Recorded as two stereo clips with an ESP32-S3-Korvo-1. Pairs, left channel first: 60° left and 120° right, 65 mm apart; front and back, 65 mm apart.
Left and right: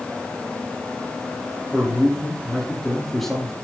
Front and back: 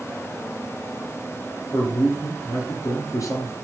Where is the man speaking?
25° right, 4 m.